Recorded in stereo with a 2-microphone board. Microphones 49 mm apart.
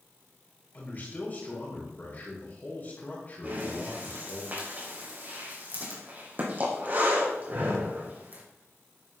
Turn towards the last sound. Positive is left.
turn(degrees=-40)  # may be behind; listen again after turning